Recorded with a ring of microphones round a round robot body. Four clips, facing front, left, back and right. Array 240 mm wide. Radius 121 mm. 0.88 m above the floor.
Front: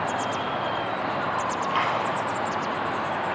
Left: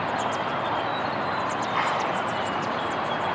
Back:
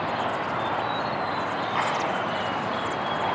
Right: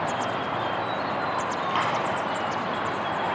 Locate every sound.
1.7 s a dropped coin: 50° right, 4 m